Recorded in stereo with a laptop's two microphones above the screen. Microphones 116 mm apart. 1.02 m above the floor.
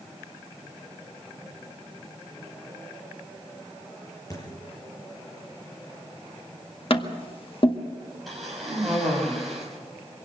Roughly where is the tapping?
Left.